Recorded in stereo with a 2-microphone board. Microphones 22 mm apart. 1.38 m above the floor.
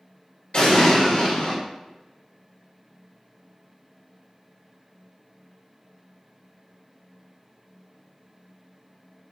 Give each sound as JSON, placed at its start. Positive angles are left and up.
{"t": 0.5, "sound": "an explosion", "side_deg": 45, "distance_m": 1.9}